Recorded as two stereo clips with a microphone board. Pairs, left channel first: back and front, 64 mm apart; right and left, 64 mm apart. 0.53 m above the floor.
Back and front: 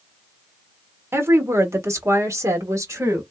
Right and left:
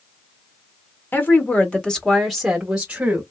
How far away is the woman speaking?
About 1.4 m.